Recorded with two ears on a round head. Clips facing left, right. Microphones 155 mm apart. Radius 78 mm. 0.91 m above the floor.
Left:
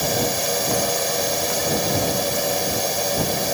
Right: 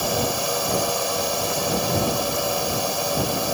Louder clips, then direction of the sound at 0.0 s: Left 1 dB; 10° left (ahead or behind).